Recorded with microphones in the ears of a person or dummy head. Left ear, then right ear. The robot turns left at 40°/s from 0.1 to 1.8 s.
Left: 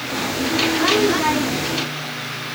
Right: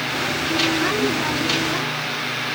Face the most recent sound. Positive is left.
No sound to turn to.